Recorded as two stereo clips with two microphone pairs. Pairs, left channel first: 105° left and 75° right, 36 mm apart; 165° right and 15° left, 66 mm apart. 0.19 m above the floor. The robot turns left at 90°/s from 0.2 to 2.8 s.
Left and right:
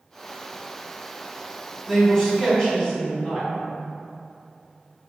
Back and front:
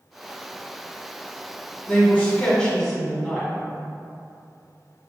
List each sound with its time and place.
1.9 s a man speaking: 160° right, 1.3 m; by 3.5 s 120° left, 1.3 m